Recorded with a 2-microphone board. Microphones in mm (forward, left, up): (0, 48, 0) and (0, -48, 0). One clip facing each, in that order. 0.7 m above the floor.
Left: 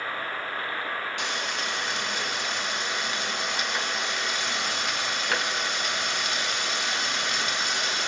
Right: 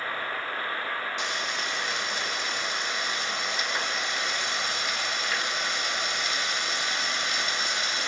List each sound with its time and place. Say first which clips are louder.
1.2 s frying: left 1 dB; 70° left (ahead or behind), 1.6 m